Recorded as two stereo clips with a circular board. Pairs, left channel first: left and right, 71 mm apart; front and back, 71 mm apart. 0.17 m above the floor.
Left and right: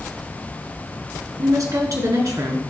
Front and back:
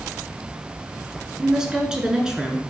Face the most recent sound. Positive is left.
turn(degrees=-105)